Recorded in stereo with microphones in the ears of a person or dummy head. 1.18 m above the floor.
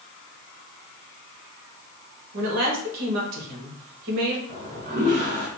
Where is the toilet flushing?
45° right (ahead or behind), 1.5 m.